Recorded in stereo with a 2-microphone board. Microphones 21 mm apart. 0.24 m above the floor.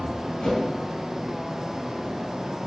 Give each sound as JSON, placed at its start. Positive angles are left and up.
{"t": 0.4, "sound": "a whoosh", "side_deg": 45, "distance_m": 1.8}